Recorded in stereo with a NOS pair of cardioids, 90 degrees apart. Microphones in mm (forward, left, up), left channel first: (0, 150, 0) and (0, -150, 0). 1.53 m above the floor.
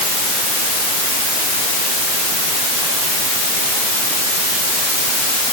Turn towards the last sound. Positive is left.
No sound to turn to.